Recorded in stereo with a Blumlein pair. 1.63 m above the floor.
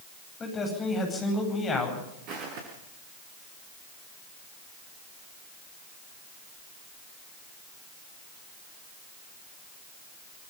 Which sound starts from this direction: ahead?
A man speaking, at 0.4 s.